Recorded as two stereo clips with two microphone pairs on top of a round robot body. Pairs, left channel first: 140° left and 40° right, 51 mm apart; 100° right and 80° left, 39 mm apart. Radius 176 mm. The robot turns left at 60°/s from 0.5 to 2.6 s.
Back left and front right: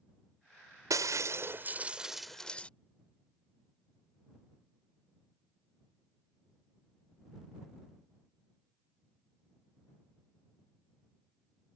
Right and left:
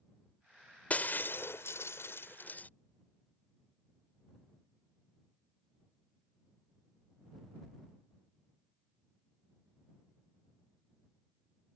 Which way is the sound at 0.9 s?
50° right.